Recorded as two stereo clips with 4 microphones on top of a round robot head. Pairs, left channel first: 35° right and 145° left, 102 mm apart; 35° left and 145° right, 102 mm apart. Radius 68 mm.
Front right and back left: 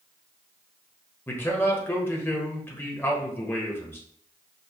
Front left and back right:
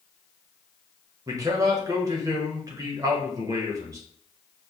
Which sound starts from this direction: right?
A man speaking, at 1.3 s.